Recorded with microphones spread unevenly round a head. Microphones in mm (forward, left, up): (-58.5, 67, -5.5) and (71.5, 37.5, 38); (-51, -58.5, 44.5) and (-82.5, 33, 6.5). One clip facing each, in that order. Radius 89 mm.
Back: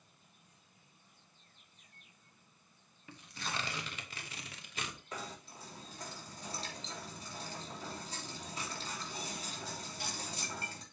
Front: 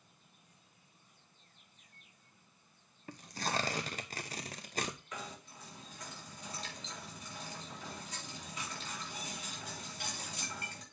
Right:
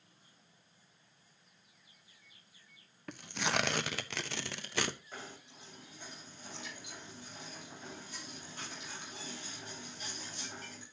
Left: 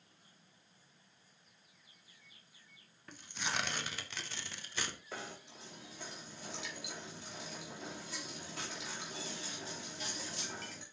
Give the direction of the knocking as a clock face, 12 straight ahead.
8 o'clock.